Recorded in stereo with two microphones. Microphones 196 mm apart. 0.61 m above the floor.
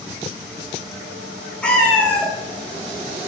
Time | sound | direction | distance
1.6 | a cat meowing | 5° left (ahead or behind) | 0.9 m